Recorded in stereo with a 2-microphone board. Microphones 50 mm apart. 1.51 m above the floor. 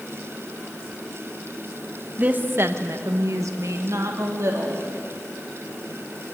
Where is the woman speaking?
30° right (ahead or behind), 1.5 m; by 4.8 s 55° right (ahead or behind), 3 m.